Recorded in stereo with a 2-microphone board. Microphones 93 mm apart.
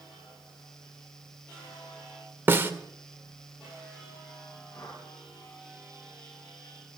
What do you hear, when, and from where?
2.5 s a snare drum: 25° right (ahead or behind), 1.6 m
4.7 s a whoosh: 45° left (ahead or behind), 6 m